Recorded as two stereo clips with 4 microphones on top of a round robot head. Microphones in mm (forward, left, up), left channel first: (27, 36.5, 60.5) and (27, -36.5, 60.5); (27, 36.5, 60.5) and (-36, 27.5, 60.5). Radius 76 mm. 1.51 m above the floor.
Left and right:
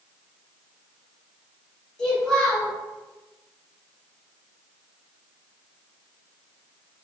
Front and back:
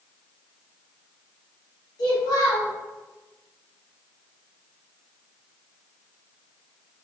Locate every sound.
2.0 s a child speaking: 10° left, 1.0 m